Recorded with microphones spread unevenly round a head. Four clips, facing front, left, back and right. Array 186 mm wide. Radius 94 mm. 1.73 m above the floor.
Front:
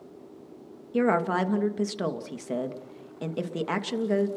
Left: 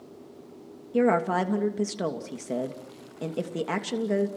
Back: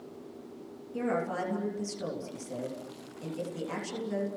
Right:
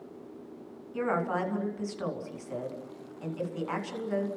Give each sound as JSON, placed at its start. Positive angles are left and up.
{"t": 0.9, "sound": "a woman speaking", "azimuth_deg": 45, "distance_m": 3.0}